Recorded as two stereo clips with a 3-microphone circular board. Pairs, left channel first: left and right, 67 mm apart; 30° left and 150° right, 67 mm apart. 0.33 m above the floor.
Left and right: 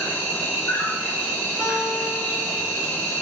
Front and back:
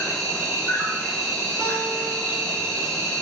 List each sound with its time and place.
0.0 s an insect: 120° left, 1.3 m
1.6 s a guitar: 140° right, 1.8 m